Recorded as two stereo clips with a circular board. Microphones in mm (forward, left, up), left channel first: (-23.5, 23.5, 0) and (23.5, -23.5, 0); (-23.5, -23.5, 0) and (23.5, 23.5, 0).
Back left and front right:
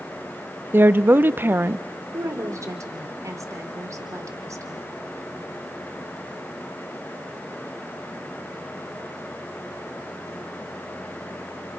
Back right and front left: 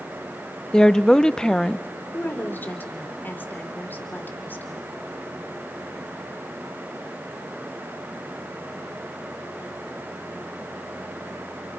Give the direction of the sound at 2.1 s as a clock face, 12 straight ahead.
3 o'clock.